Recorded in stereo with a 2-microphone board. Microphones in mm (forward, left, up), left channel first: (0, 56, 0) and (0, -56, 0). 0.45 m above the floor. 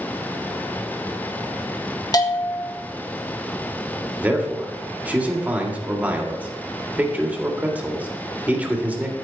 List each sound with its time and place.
2.1 s a bell: 35° left (ahead or behind), 1.1 m
4.2 s a man speaking: 15° right (ahead or behind), 1.7 m